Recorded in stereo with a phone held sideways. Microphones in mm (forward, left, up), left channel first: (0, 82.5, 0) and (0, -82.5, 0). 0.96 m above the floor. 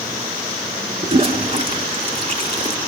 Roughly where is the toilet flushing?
Right.